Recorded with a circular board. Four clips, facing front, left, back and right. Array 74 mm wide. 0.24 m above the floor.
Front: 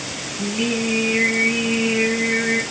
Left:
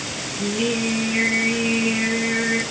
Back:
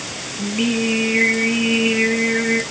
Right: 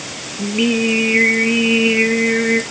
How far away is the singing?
About 2 m.